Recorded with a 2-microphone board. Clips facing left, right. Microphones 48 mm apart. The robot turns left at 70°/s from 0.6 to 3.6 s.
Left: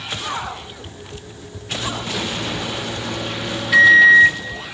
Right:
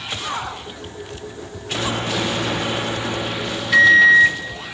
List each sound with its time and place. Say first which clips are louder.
1.8 s a microwave: right 3 dB; 50° right, 0.7 m; by 4.7 s straight behind, 0.7 m